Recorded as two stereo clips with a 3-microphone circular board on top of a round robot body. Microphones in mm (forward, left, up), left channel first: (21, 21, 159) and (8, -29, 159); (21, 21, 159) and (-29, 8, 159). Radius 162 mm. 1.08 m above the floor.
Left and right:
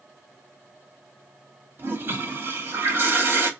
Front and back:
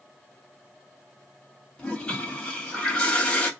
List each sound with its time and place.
1.8 s a toilet flushing: 60° right, 0.7 m